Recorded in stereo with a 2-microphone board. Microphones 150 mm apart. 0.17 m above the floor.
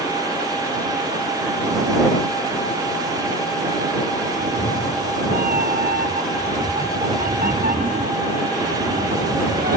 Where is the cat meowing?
85° right.